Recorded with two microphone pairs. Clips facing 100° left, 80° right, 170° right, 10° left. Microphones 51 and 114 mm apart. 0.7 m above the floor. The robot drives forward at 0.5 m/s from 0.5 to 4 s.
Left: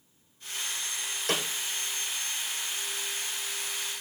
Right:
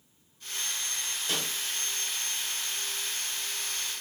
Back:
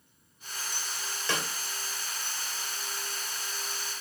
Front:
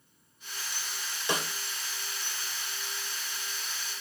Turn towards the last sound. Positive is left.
turn(degrees=115)